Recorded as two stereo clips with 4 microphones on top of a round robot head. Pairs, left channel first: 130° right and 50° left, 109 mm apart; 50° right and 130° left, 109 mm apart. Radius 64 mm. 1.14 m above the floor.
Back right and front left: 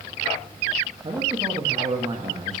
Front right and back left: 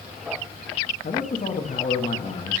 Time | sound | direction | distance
1.0 | a man speaking | 10° right | 1.3 m